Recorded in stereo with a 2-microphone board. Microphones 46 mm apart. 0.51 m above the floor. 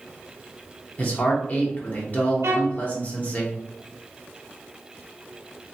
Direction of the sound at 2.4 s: 75° right (ahead or behind).